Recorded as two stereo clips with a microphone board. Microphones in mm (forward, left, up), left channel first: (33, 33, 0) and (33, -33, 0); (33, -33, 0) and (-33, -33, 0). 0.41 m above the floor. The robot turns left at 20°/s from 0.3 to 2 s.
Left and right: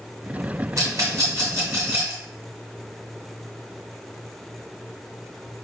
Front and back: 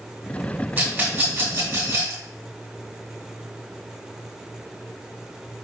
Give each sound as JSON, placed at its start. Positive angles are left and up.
{"t": 0.8, "sound": "a rattle", "azimuth_deg": -115, "distance_m": 2.0}